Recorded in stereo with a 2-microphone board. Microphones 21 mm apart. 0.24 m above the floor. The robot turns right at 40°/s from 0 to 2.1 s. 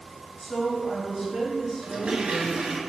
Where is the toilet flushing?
75° right (ahead or behind), 0.7 m; by 2.8 s 85° right, 0.7 m.